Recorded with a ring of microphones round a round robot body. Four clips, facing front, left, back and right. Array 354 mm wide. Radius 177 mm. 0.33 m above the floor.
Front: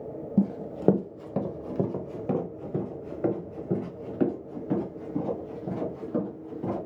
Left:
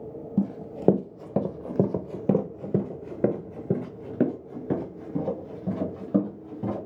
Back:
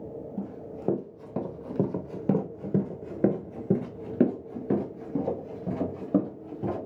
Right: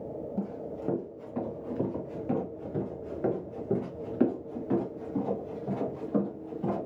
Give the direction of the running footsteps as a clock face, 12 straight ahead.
11 o'clock.